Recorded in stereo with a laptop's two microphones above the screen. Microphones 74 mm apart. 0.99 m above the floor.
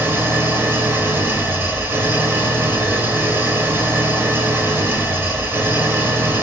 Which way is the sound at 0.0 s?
30° right (ahead or behind).